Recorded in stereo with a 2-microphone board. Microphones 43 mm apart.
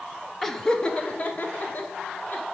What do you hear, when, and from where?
0.4 s laughter: 5° left (ahead or behind), 0.9 m; by 2.4 s 45° left (ahead or behind), 2.5 m